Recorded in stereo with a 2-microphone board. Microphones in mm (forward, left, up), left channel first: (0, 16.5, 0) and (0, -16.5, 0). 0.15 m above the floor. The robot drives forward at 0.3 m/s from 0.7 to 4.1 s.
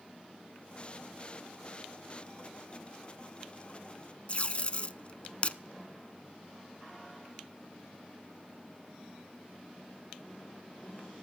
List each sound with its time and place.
4.3 s tape being pulled: 40° left (ahead or behind), 0.7 m